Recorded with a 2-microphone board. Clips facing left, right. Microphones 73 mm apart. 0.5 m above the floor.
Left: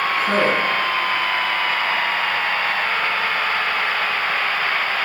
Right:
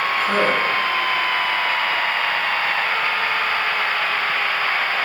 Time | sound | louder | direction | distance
0.2 | a man speaking | even | 45° left (ahead or behind) | 3.5 m